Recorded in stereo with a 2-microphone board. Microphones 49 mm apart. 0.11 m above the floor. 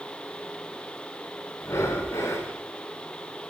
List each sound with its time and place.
1.6 s breathing: 70° left (ahead or behind), 4 m